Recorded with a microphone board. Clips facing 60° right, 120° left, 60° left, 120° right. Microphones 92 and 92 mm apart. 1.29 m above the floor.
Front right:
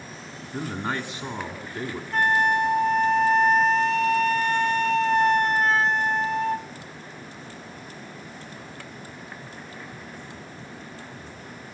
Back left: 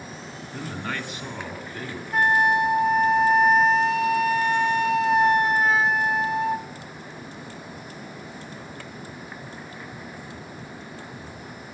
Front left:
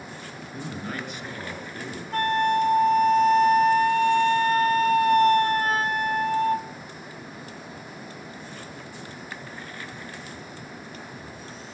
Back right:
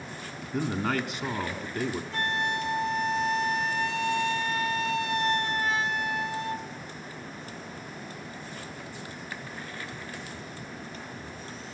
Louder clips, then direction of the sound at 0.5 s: Front right 3 dB, back right 6 dB; 130° right.